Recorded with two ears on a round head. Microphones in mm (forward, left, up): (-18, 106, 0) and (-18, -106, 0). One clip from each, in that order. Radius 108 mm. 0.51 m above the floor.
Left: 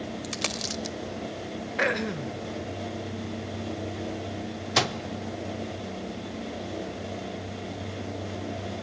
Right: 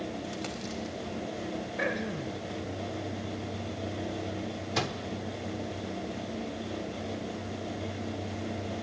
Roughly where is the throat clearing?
Left.